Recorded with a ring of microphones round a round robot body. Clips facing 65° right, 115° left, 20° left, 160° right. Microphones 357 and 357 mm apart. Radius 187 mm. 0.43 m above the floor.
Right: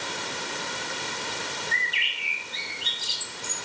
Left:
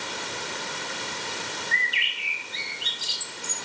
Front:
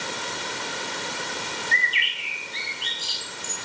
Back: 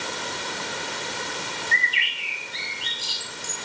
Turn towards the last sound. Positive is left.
turn(degrees=125)